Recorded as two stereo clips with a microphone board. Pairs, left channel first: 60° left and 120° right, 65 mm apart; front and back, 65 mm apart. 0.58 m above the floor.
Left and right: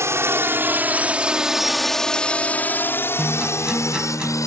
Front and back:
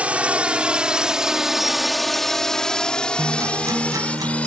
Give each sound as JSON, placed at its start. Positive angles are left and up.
{"t": 0.0, "sound": "a drone", "azimuth_deg": -120}
{"t": 3.2, "sound": "a guitar", "azimuth_deg": 160}